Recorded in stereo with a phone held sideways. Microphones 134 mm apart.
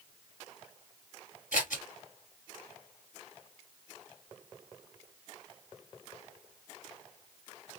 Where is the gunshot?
No gunshot in this recording.